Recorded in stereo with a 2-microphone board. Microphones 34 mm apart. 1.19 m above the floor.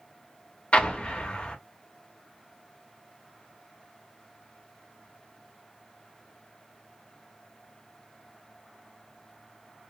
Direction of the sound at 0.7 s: 35° left (ahead or behind).